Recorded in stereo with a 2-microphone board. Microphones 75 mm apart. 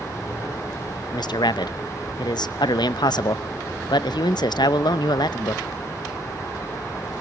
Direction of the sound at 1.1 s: 70° left (ahead or behind).